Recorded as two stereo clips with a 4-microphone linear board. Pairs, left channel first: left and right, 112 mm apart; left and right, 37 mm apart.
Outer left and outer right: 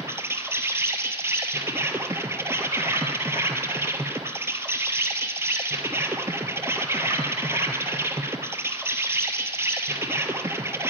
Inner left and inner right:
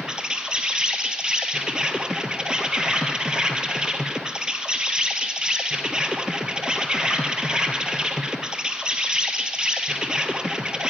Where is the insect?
25° right (ahead or behind), 1.0 m.